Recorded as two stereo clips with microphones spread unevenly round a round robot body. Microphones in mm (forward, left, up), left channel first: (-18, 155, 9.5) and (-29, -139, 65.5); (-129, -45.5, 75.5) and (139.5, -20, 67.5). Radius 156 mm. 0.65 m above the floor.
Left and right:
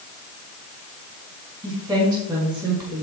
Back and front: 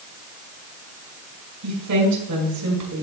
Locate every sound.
1.6 s a woman speaking: 10° right, 6 m